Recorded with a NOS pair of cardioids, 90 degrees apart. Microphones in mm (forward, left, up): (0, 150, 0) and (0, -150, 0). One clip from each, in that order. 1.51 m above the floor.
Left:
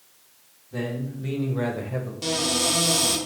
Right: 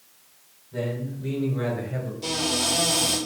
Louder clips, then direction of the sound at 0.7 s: Right 1 dB; 50° left.